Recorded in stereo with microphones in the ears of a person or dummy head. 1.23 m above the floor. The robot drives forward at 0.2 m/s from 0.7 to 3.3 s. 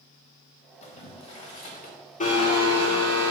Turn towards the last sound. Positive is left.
turn(degrees=20)  # may be behind; listen again after turning